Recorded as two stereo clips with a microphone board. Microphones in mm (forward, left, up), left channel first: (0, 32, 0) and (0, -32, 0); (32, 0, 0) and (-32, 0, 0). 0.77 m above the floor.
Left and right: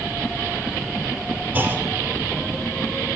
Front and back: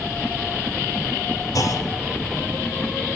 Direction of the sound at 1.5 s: 30° right.